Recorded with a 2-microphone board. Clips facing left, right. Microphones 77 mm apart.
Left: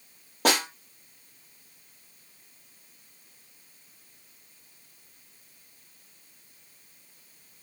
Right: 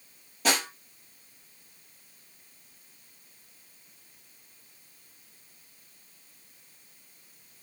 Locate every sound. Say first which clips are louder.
0.5 s a snare drum: left 3 dB; 50° left (ahead or behind), 6 m